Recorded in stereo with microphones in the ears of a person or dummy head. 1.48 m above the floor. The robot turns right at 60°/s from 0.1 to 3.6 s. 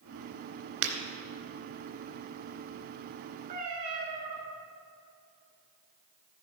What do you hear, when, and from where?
0.8 s breaking glass: 70° right (ahead or behind), 2.5 m; by 0.9 s 65° right (ahead or behind), 2.5 m
3.5 s a cat meowing: 30° right (ahead or behind), 4 m; by 4.3 s 40° right (ahead or behind), 4 m